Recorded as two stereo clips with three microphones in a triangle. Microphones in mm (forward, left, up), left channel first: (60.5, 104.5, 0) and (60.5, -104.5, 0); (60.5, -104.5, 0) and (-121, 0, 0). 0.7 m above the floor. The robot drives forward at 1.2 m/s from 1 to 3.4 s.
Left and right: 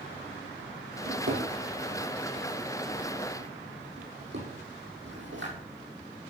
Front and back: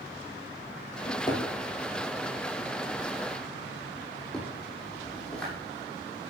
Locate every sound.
1.1 s a drawer: 95° right, 7.5 m; by 5.5 s 115° right, 8 m